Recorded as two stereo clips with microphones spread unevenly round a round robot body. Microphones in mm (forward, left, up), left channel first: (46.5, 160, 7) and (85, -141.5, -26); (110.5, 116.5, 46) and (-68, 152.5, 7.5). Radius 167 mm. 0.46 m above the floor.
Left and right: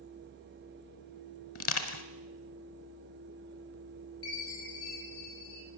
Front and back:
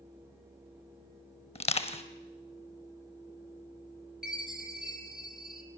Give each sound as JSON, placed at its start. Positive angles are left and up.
{"t": 1.6, "sound": "crushing", "azimuth_deg": 50, "distance_m": 1.8}
{"t": 4.2, "sound": "a chime", "azimuth_deg": 80, "distance_m": 4.0}